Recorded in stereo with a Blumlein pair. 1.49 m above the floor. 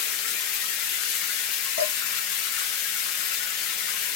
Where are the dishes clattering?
55° left, 1.6 m.